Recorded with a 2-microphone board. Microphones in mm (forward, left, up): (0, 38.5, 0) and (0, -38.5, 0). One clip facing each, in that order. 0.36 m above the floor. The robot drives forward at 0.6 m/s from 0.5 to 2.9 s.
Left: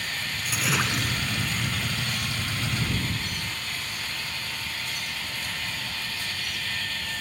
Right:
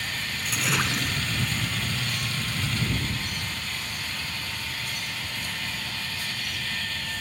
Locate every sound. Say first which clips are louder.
0.5 s a splash: even; centre (ahead or behind)